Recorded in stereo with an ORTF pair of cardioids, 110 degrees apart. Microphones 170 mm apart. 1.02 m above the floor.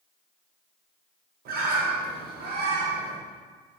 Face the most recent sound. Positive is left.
turn(degrees=-65)